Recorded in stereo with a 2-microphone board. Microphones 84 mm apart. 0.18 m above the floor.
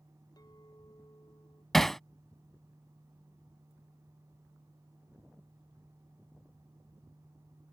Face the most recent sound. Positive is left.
turn(degrees=5)  # may be behind; listen again after turning